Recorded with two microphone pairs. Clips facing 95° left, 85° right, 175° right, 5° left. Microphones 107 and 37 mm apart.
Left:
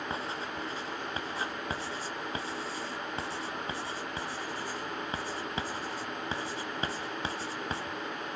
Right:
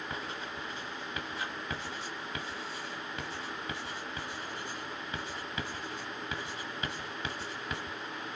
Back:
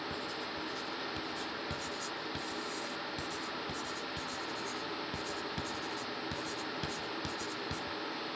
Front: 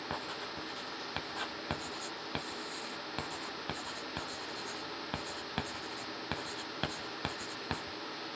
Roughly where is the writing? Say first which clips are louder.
Left 4 dB, back 1 dB; ahead left.